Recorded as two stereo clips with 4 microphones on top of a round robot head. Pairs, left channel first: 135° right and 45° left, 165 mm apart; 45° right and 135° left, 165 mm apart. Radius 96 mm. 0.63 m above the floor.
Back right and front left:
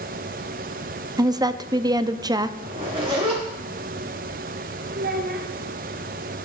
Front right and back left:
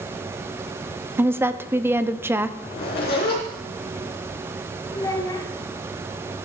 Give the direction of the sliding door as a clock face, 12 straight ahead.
No sliding door in this recording.